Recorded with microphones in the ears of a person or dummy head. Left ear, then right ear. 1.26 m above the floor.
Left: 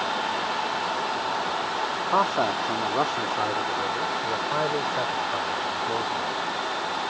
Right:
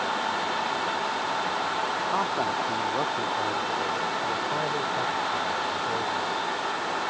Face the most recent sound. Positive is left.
turn(degrees=55)  # may be behind; listen again after turning